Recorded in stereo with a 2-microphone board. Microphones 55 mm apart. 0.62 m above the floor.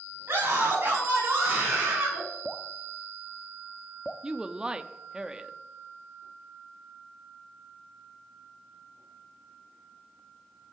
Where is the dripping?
10° left (ahead or behind), 0.7 m.